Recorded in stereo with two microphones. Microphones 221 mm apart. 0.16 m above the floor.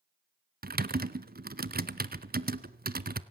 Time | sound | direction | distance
0.6 | typing on a keyboard | 50° right (ahead or behind) | 0.6 m